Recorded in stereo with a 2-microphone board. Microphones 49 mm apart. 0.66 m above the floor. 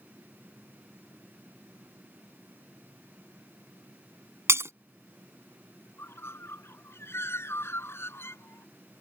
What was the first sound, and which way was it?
Breaking glass, 65° right (ahead or behind).